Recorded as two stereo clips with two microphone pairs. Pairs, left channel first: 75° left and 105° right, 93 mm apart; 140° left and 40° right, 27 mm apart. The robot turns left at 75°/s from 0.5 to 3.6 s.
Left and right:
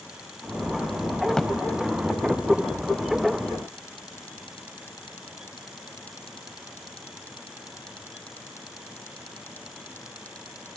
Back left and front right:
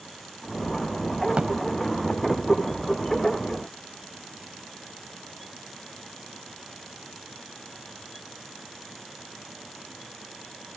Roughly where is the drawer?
Ahead.